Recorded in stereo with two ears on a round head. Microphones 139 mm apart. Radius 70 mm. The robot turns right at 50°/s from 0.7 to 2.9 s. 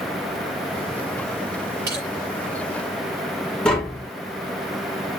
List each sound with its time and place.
1.9 s crushing: 70° right (ahead or behind), 6 m; by 2.0 s 60° right (ahead or behind), 6 m
3.6 s tapping: 5° left (ahead or behind), 1.8 m